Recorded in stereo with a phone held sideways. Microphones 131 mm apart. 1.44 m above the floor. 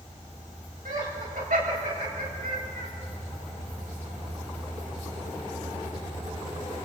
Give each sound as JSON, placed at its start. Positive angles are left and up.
{"t": 0.8, "sound": "laughter", "side_deg": -90, "distance_m": 8.0}